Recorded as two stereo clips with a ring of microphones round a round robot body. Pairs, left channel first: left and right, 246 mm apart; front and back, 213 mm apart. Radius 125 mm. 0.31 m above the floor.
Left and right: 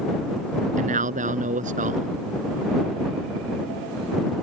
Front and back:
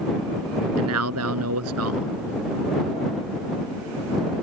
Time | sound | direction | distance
0.8 | a man speaking | 150° right | ?